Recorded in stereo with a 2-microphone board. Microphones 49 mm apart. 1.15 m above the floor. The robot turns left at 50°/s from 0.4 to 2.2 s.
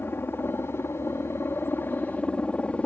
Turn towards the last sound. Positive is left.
turn(degrees=30)